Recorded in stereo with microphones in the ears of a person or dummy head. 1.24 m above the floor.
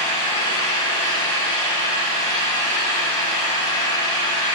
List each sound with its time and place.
0.0 s an engine running: 15° left (ahead or behind), 3 m